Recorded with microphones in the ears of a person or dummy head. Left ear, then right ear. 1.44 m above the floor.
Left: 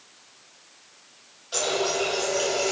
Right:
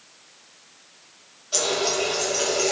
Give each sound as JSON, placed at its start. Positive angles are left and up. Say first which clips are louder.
{"t": 1.5, "sound": "a running tap", "louder": "right 2 dB", "side_deg": 15, "distance_m": 5.5}